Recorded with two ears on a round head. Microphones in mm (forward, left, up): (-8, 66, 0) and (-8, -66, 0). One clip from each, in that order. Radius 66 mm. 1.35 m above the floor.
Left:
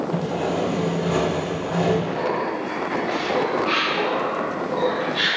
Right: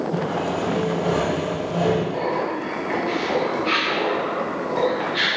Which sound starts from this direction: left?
Sawing, at 0.1 s.